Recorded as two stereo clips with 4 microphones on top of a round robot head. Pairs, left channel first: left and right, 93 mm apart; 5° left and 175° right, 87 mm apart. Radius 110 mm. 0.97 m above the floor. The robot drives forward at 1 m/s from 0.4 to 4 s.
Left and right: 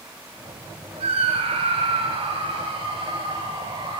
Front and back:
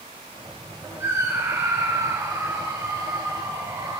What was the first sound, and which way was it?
A scream, 110° right.